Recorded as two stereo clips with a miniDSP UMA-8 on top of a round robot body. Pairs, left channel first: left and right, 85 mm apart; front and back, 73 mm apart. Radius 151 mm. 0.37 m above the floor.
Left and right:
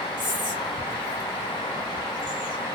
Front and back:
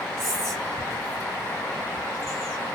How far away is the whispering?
About 3 m.